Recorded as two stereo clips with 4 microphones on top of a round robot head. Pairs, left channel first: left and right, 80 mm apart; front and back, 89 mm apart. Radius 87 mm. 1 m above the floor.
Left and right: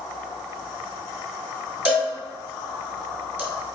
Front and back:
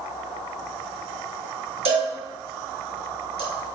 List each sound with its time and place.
1.9 s a cowbell: 160° right, 2.5 m